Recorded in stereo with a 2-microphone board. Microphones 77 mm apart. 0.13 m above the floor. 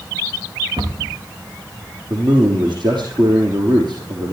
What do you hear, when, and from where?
0.8 s a cupboard door: 70° right (ahead or behind), 4.5 m
2.1 s a man speaking: 75° right (ahead or behind), 5 m